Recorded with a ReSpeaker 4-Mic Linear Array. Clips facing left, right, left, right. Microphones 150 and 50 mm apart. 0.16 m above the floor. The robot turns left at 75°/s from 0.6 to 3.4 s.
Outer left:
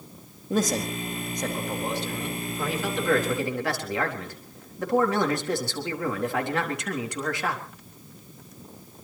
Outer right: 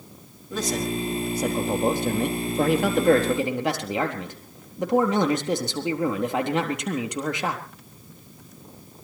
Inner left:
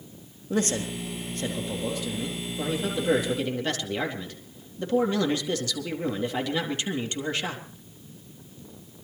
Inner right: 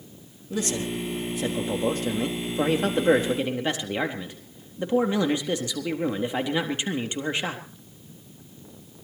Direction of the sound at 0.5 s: 50° left.